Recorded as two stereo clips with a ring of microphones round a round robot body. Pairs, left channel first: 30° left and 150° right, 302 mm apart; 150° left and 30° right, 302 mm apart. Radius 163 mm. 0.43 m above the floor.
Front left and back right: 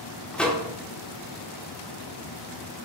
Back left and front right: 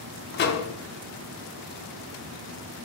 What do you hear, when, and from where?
0.3 s a microwave: 115° left, 0.6 m